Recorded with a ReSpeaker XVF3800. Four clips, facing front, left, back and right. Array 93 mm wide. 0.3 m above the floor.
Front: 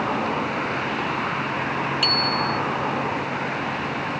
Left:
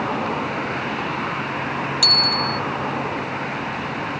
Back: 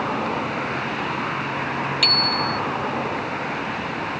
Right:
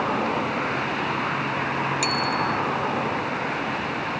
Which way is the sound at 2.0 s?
150° right.